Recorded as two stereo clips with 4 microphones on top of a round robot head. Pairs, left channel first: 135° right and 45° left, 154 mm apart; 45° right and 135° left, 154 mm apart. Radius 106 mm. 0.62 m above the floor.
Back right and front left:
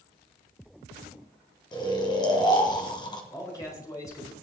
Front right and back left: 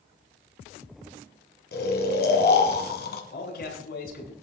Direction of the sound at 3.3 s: 65° right.